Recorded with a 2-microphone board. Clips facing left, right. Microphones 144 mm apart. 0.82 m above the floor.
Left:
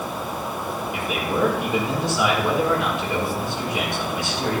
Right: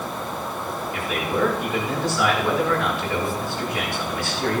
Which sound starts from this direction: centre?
A man speaking, at 0.9 s.